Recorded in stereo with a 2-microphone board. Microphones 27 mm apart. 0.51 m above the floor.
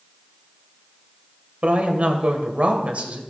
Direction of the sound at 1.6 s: 65° right (ahead or behind).